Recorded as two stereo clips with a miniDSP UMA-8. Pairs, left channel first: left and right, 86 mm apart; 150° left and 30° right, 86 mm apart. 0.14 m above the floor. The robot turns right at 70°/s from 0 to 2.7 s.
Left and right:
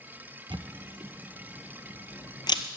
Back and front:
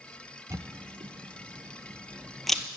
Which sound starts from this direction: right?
A camera shutter, at 0.5 s.